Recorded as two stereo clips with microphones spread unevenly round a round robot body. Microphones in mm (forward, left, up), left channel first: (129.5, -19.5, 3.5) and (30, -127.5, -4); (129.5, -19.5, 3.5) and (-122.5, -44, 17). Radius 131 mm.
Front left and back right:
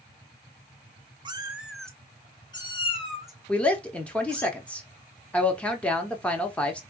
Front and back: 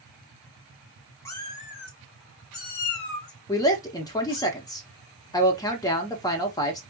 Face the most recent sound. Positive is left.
turn(degrees=-25)